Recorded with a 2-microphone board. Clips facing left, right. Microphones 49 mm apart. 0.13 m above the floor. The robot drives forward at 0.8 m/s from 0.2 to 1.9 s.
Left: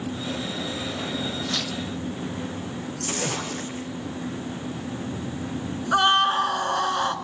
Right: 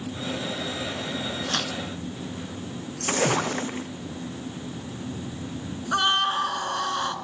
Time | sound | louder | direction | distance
1.5 | tearing paper | right 1 dB | 50° right (ahead or behind) | 1.0 m
3.0 | a splash | right 7 dB | 35° right (ahead or behind) | 1.4 m
5.9 | a scream | left 4 dB | 10° left (ahead or behind) | 1.4 m